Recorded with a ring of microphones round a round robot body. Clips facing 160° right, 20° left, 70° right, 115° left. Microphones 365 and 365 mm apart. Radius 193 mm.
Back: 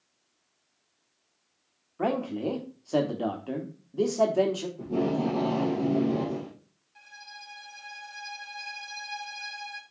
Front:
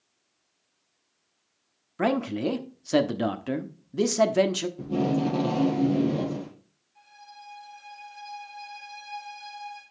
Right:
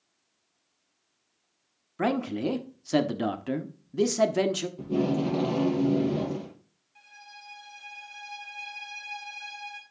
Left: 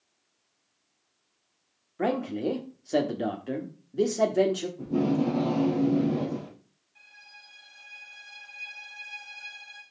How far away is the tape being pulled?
About 3.5 m.